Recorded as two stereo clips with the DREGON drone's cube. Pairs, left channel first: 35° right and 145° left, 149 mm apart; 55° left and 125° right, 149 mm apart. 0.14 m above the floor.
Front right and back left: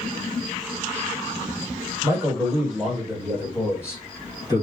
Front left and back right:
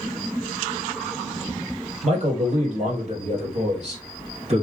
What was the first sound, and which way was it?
A man speaking, 155° right.